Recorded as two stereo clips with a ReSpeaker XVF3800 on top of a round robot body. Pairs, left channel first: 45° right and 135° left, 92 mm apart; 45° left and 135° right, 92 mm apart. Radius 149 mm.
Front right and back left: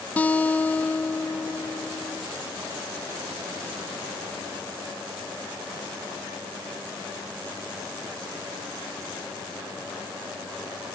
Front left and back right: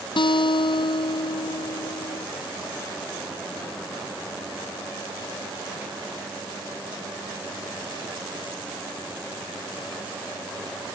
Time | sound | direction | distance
0.2 | a guitar | 30° left | ?